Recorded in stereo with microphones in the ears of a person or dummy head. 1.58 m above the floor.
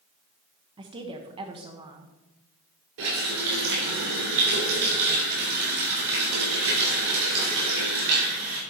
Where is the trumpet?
I don't hear a trumpet.